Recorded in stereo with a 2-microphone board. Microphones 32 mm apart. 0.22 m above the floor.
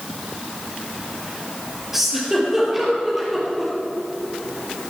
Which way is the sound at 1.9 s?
10° right (ahead or behind).